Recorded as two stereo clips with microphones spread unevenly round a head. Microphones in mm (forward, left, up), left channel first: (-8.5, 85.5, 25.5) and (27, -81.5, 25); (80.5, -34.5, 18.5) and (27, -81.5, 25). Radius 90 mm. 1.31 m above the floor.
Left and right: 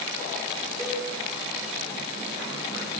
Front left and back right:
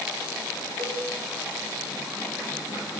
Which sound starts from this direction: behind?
A cowbell, at 0.8 s.